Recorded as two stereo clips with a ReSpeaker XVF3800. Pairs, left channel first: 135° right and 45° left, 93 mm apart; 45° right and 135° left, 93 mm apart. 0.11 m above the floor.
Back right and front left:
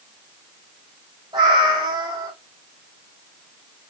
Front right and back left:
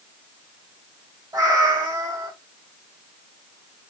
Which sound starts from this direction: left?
A cat meowing, at 1.3 s.